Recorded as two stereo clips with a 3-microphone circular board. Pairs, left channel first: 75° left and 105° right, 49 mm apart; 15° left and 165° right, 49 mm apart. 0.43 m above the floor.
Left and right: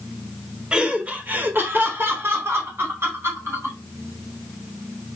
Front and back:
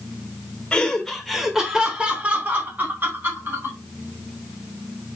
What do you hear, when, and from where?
0.7 s laughter: 45° right, 1.1 m; by 3.8 s 130° right, 2.5 m